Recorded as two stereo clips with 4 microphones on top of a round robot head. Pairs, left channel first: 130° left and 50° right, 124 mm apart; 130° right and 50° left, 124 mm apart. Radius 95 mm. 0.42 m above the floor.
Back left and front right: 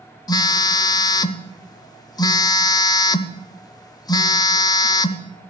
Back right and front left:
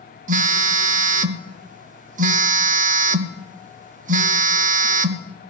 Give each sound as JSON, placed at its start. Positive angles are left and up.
{"t": 0.3, "sound": "a phone buzzing", "azimuth_deg": 70, "distance_m": 0.6}